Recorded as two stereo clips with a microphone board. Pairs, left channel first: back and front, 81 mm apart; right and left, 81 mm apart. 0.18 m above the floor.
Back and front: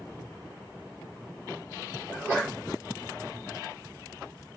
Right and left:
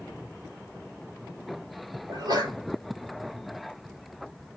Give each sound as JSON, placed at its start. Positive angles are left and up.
{"t": 2.1, "sound": "a sneeze", "azimuth_deg": 70, "distance_m": 5.0}